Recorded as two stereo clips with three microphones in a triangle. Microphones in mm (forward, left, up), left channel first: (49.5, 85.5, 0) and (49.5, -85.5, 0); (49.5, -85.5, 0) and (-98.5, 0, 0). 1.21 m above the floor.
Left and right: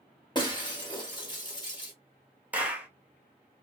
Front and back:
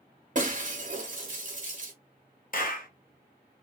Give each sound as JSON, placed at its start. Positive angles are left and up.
{"t": 0.3, "sound": "breaking glass", "azimuth_deg": 145, "distance_m": 0.7}
{"t": 2.5, "sound": "a clap", "azimuth_deg": -10, "distance_m": 0.7}